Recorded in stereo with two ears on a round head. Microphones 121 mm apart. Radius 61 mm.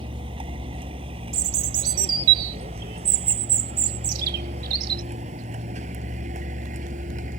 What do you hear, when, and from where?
0.0 s a vehicle: 40° right (ahead or behind); by 7.4 s 60° right (ahead or behind)
1.3 s a bird: 80° right